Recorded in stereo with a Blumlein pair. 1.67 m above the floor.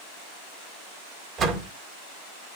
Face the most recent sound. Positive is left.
turn(degrees=-30)